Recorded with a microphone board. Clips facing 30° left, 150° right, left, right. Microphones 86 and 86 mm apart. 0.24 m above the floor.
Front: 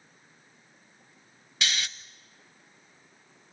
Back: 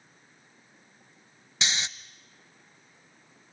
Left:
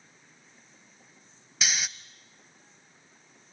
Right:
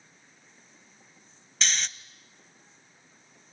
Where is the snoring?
165° left, 0.6 m.